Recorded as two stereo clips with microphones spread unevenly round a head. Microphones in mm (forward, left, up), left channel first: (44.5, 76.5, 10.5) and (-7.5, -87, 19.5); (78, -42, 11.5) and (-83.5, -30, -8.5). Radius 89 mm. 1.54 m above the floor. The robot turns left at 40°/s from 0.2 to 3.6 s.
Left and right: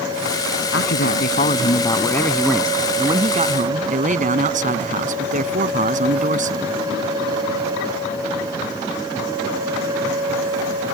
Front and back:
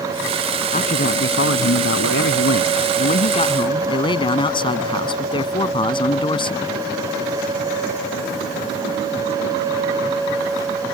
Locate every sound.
0.7 s a man speaking: 50° left; by 6.7 s 65° right